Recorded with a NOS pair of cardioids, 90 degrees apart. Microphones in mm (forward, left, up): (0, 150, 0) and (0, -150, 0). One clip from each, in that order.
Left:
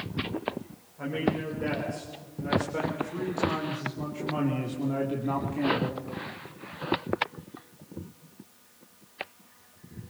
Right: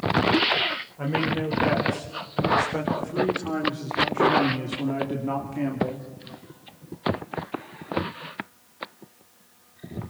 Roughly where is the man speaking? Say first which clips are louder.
Right 2 dB; ahead right.